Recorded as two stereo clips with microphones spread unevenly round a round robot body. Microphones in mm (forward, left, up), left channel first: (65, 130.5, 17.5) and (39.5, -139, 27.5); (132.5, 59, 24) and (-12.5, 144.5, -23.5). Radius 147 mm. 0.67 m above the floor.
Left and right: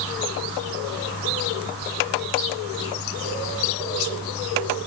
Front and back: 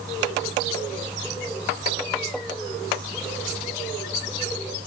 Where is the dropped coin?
I don't hear a dropped coin.